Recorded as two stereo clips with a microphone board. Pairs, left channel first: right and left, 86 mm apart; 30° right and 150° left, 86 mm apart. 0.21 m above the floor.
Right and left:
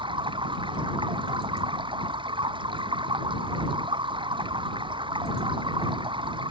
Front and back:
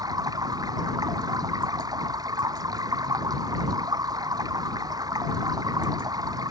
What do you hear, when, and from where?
0.0 s running water: 105° left